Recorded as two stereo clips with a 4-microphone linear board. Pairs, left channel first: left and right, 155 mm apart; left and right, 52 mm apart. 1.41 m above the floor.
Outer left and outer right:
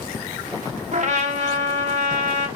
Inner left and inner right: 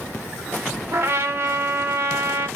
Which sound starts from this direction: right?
A trumpet, at 0.9 s.